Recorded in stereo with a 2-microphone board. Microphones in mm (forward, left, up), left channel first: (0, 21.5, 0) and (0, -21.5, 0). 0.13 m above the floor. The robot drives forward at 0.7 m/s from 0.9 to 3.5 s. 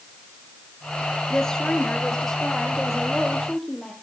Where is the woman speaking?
20° left (ahead or behind), 1.7 m; by 3.9 s 10° left (ahead or behind), 3 m.